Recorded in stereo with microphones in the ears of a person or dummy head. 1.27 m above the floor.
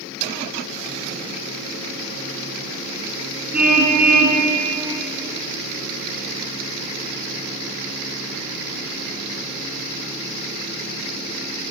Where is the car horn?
5° right (ahead or behind), 8.5 m.